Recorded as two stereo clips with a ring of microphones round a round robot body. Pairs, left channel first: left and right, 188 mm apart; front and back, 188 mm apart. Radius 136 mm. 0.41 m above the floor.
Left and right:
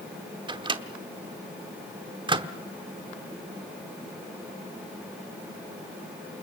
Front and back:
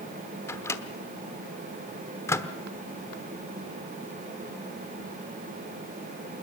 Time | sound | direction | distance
0.5 | a microwave | 60° right | 1.0 m